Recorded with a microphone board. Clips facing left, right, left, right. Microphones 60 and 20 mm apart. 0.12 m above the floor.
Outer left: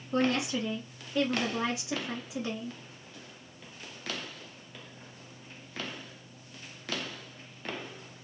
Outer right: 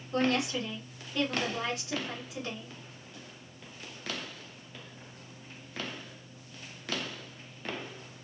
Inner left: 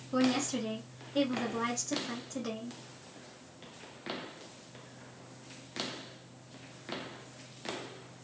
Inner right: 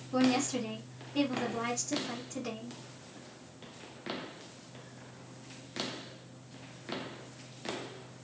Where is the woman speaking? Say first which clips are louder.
Even, inner right 1 dB; 15° left (ahead or behind), 1.6 m.